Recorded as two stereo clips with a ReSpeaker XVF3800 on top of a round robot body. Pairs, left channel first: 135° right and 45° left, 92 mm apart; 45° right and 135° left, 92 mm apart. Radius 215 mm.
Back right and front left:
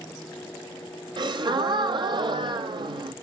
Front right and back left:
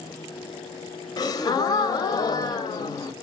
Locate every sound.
1.2 s a gasp: 5° left, 0.5 m